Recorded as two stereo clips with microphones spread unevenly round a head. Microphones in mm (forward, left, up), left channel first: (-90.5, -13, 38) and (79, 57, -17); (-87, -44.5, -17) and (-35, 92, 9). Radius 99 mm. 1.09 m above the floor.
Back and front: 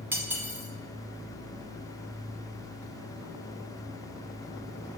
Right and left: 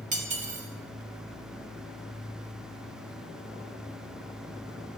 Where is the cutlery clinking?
105° left, 1.5 m.